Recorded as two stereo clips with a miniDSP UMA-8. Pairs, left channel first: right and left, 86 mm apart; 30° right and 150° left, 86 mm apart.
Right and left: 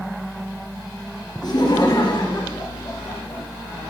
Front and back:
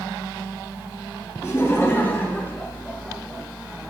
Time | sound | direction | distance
1.4 | laughter | 80° right | 2.5 m